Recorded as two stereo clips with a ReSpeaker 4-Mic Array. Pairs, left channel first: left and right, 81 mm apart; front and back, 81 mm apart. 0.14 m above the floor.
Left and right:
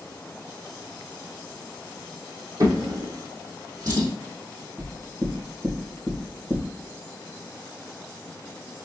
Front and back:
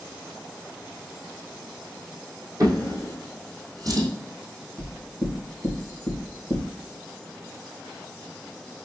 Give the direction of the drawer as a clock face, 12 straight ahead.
5 o'clock.